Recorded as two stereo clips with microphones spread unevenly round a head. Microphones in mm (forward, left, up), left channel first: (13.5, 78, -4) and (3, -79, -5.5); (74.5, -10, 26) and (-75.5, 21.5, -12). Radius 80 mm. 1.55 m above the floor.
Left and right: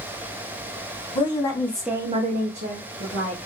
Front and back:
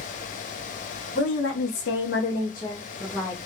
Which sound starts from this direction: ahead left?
A woman speaking, at 1.1 s.